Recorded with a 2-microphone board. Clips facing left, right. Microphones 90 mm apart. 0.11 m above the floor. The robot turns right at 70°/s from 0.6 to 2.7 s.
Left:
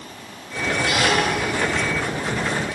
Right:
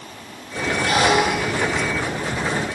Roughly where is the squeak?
Ahead right.